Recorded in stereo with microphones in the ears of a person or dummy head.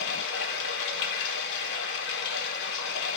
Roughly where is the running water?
Left.